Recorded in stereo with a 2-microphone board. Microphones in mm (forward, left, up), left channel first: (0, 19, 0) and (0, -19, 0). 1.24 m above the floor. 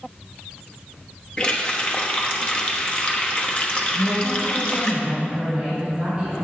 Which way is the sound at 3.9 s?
25° right (ahead or behind).